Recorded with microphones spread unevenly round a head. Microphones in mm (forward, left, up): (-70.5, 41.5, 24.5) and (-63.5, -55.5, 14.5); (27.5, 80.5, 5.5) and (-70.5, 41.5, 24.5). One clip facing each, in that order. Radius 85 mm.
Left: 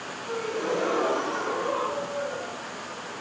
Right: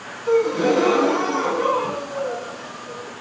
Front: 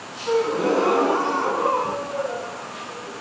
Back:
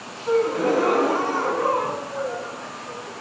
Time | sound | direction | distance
0.3 | a gasp | 55° right | 3.5 m